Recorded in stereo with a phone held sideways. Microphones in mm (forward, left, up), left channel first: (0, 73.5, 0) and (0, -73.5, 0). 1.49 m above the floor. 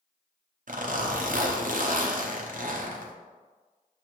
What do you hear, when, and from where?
0.7 s a zipper: 65° right (ahead or behind), 0.6 m